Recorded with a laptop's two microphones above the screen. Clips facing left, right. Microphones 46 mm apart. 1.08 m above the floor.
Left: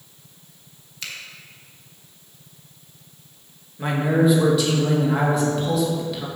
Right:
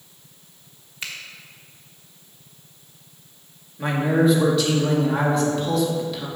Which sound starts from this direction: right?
A finger snap, at 1.0 s.